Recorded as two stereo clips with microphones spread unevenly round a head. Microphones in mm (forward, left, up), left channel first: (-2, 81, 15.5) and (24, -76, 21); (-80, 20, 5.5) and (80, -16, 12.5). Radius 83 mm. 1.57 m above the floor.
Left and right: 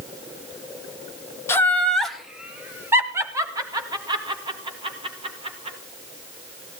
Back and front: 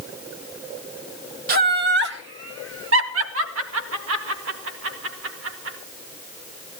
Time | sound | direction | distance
1.5 | laughter | 25° left | 2 m